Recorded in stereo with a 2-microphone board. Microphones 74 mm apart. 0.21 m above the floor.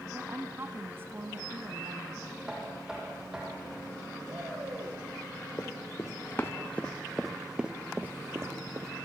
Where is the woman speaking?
30° right (ahead or behind), 2.5 m.